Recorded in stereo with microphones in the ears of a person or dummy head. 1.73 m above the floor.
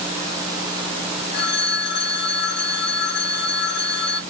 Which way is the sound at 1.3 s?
45° left (ahead or behind).